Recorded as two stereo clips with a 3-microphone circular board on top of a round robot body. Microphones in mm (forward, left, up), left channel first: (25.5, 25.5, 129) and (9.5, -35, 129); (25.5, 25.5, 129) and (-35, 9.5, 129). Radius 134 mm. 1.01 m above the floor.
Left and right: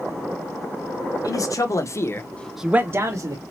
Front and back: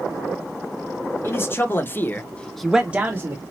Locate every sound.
1.2 s a man speaking: 65° left, 1.6 m; by 3.4 s 110° right, 1.2 m